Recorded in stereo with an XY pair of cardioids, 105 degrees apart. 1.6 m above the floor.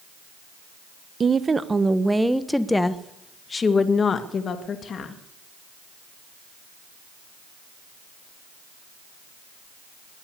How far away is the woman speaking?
About 1.2 m.